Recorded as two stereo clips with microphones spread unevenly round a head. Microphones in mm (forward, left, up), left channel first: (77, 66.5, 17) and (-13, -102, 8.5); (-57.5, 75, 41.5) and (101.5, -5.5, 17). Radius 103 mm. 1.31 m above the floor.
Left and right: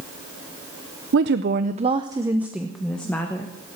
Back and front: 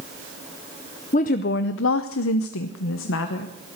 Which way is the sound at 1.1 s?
150° right.